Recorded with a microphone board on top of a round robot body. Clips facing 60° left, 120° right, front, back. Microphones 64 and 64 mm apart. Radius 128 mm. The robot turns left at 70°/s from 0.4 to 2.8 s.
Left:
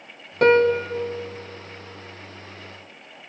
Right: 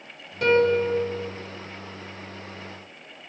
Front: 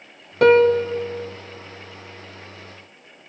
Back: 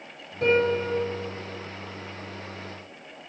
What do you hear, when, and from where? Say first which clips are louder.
0.4 s a piano: left 3 dB, front 9 dB; 15° left, 0.5 m; by 0.9 s 20° right, 0.5 m